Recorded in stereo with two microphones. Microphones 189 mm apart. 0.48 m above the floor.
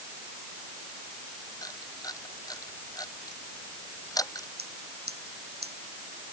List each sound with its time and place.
1.6 s a camera shutter: 20° left (ahead or behind)
4.6 s scissors: 60° right (ahead or behind)